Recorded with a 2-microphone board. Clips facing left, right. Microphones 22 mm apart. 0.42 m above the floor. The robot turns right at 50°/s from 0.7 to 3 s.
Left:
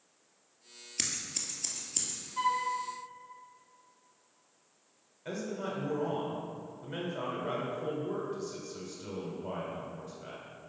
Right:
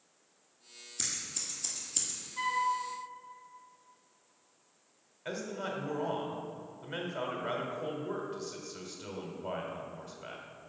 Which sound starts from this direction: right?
A man speaking, at 5.2 s.